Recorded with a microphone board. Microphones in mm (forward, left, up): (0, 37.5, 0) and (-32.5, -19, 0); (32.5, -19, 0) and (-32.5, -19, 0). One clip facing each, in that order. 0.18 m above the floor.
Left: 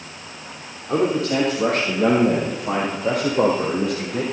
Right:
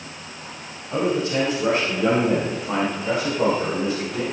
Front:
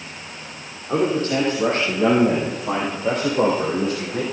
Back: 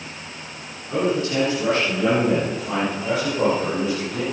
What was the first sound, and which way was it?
A man speaking, 50° left.